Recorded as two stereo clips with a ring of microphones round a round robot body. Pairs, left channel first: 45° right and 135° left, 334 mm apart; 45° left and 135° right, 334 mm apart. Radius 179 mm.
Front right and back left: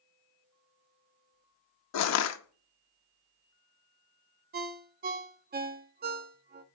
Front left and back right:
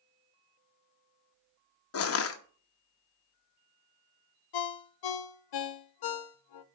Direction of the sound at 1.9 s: 5° right.